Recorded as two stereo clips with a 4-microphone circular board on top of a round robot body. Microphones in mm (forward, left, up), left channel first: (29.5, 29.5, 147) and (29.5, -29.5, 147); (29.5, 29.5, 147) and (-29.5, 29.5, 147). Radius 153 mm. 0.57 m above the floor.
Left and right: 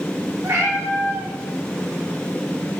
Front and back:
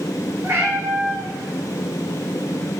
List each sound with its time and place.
0.4 s a cat meowing: 130° right, 2.5 m